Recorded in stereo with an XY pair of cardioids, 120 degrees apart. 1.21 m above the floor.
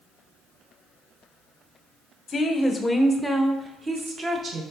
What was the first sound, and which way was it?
A woman speaking, 30° left.